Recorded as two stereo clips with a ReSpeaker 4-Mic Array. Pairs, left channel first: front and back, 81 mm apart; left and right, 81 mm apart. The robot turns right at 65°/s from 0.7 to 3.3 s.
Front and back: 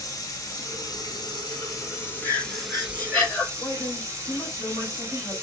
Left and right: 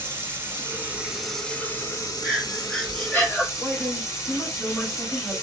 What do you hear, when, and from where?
0.0 s running water: 35° right, 1.0 m; by 5.4 s 135° left, 1.0 m
2.2 s breathing: 5° left, 1.5 m; by 3.5 s 75° left, 1.5 m
3.6 s a man speaking: 10° left, 1.4 m